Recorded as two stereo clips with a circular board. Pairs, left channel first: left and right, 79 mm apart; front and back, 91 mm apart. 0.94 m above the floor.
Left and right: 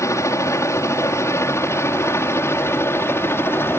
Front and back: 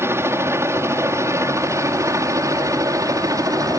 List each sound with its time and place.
0.0 s a helicopter: 125° left; by 3.8 s 140° left